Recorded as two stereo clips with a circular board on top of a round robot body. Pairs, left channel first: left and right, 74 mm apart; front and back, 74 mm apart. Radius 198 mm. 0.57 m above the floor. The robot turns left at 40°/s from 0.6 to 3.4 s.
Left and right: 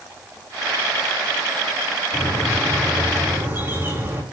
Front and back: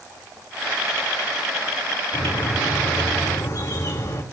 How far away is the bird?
About 4.5 m.